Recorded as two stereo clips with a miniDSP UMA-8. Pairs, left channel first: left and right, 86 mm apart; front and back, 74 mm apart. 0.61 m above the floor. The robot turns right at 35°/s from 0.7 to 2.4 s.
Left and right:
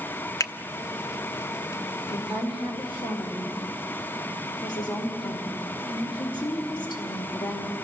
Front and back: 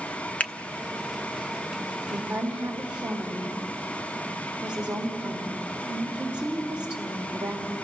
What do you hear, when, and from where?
0.4 s a finger snap: 65° left, 0.7 m
2.1 s a woman speaking: 95° left, 2 m; by 7.7 s 105° left, 2 m